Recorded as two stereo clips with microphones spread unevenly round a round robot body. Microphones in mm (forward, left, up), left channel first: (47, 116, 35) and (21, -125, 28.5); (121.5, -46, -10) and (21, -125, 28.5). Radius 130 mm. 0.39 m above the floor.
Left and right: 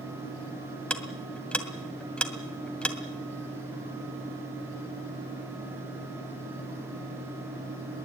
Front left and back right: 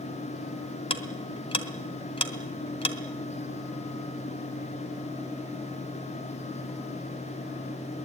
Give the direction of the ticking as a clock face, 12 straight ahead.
12 o'clock.